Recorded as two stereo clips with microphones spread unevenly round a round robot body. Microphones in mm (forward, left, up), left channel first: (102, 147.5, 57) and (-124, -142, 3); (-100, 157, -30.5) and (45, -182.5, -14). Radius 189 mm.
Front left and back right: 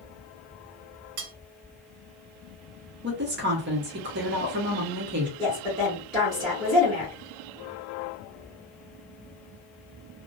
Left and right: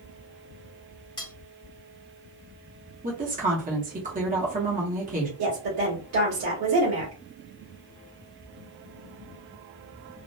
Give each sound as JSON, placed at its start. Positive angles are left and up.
{"t": 1.2, "sound": "cutlery clinking", "azimuth_deg": -170, "distance_m": 0.6}
{"t": 3.0, "sound": "a woman speaking", "azimuth_deg": -125, "distance_m": 0.8}
{"t": 5.4, "sound": "a woman speaking", "azimuth_deg": -45, "distance_m": 1.2}